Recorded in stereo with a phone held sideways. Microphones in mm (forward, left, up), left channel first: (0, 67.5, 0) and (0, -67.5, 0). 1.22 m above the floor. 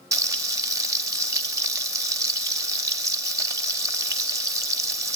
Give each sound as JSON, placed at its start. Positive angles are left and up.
{"t": 0.1, "sound": "frying", "side_deg": -25, "distance_m": 0.8}